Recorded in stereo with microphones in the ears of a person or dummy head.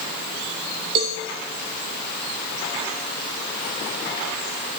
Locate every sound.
0.9 s a cowbell: 30° right (ahead or behind), 0.8 m